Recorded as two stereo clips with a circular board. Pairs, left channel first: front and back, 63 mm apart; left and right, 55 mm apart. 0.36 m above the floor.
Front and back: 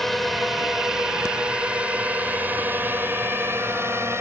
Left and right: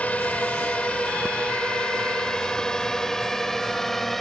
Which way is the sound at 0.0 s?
85° left.